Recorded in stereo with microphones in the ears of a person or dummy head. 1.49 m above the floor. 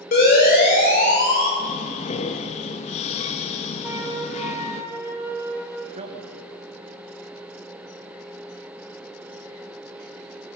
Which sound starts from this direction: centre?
A flute, at 3.8 s.